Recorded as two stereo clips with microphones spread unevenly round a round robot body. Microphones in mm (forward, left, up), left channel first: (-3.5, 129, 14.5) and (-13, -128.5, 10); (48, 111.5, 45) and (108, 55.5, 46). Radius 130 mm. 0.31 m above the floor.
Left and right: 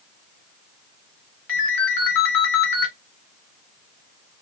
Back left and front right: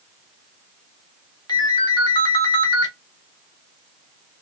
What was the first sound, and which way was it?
A ringtone, 105° left.